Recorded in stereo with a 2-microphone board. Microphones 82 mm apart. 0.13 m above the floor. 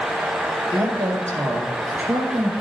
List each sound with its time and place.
0.7 s a woman speaking: 45° right (ahead or behind), 2.5 m; by 2.5 s centre (ahead or behind), 1.9 m